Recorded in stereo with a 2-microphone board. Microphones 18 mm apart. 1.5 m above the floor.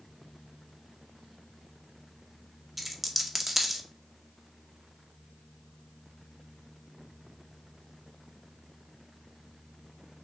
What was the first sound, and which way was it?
A dropped coin, 10° right (ahead or behind).